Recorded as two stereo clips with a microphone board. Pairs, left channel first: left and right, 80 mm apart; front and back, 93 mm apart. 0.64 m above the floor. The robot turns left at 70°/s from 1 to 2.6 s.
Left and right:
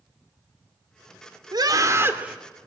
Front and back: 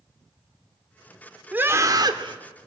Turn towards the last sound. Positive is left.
turn(degrees=175)